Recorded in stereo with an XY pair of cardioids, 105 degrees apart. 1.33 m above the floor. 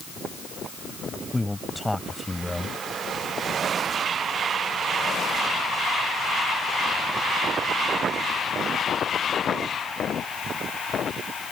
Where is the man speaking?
5° left.